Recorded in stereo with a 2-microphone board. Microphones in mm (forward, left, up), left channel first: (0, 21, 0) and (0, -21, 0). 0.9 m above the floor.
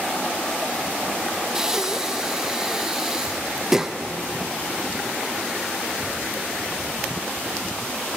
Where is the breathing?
10° right (ahead or behind), 0.8 m.